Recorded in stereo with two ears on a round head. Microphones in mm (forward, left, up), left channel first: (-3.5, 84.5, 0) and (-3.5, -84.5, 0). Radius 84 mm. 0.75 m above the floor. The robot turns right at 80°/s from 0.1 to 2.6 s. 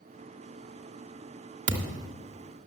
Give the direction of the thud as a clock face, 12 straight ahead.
4 o'clock.